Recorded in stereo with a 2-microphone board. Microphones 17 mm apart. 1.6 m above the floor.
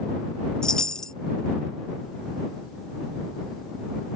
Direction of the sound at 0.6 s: 40° left (ahead or behind).